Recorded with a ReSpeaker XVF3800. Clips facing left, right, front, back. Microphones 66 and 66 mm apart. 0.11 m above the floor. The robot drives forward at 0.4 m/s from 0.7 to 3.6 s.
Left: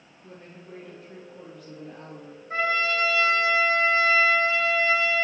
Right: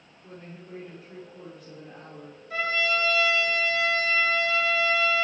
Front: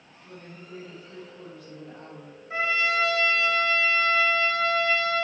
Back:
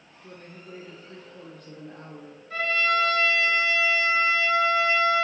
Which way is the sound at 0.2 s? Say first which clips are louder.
Right 1 dB, even; 175° right.